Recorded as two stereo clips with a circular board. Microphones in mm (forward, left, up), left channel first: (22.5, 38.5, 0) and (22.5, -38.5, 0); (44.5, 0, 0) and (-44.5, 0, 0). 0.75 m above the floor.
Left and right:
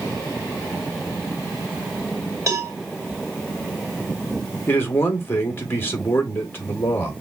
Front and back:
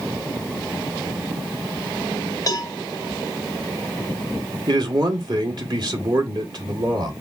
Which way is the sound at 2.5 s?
45° right.